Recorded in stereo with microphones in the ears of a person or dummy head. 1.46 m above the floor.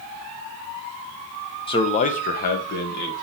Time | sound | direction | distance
1.7 | a man speaking | 35° left (ahead or behind) | 1.0 m